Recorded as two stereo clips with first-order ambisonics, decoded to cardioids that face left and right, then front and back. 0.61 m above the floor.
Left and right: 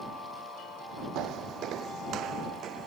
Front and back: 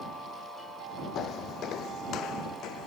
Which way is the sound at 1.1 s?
50° right.